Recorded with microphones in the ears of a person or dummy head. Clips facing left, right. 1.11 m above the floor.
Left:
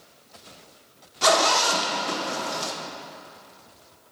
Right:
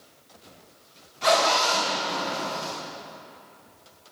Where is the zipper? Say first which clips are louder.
Left 1 dB; 80° left, 1.5 m.